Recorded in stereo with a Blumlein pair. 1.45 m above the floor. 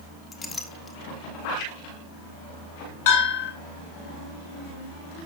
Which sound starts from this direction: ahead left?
A bell, at 3.1 s.